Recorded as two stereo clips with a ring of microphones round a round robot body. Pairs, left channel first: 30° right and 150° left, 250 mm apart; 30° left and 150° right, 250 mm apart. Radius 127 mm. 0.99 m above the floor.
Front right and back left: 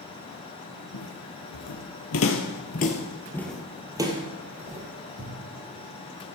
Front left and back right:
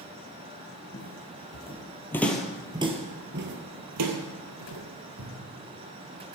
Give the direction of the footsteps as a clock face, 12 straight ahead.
1 o'clock.